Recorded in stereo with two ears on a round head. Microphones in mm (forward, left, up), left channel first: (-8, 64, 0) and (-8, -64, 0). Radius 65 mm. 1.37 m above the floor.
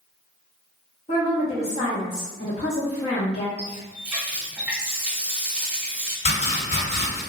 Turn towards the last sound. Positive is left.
turn(degrees=45)  # may be behind; listen again after turning